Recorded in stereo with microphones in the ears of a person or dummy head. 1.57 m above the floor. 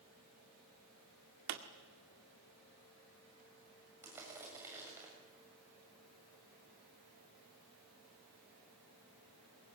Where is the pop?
55° right (ahead or behind), 2.0 m.